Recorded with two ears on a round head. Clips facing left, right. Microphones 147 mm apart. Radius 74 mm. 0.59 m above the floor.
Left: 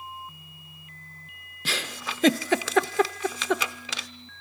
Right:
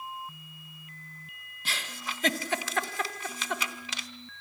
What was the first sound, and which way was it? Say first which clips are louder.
A giggle: left 5 dB; 60° left (ahead or behind).